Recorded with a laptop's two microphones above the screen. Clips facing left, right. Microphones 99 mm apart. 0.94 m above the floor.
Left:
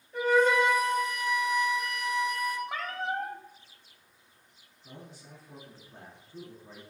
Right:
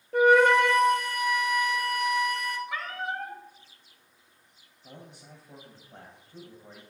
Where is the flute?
70° right (ahead or behind), 0.7 m.